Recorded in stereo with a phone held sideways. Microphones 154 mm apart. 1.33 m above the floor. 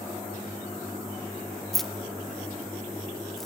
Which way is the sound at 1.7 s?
Centre (ahead or behind).